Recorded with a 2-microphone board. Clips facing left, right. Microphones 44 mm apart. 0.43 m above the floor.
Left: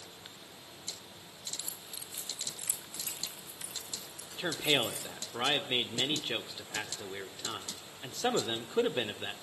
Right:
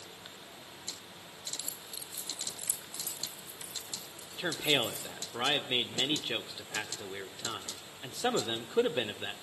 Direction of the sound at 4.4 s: 10° right (ahead or behind).